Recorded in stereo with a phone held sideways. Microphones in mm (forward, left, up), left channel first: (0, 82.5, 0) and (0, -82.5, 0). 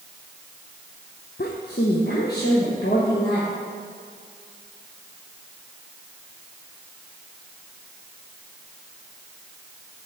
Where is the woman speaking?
70° left (ahead or behind), 0.6 m.